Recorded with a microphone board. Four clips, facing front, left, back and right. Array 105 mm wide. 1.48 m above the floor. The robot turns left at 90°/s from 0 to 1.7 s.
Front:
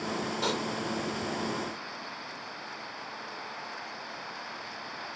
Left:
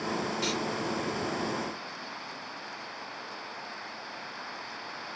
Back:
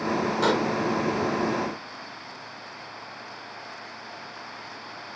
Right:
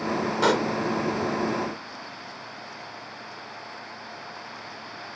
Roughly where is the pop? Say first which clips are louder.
Right 10 dB, back 9 dB; right.